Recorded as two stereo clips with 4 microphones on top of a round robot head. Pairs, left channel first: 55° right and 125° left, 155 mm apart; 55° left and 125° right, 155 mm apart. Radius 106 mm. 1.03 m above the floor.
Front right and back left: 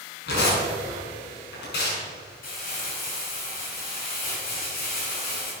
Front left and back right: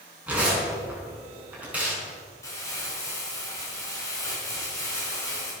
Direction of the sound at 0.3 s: 45° right.